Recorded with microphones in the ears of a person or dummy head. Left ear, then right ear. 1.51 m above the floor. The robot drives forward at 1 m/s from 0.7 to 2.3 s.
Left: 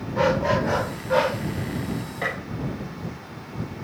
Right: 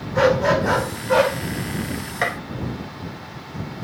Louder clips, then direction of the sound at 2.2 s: Right 5 dB; 45° right (ahead or behind).